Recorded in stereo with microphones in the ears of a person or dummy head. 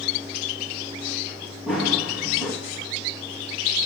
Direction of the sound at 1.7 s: 5° right (ahead or behind).